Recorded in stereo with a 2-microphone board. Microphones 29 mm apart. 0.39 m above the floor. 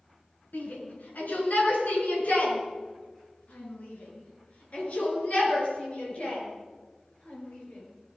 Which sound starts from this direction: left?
A shout, at 0.5 s.